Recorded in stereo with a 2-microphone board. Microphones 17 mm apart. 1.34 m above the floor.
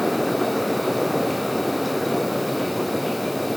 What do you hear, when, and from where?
Only background noise.